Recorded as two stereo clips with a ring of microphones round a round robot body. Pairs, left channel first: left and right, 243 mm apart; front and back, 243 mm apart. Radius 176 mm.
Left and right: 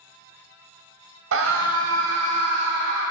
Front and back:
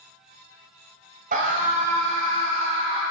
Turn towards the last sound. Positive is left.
turn(degrees=-105)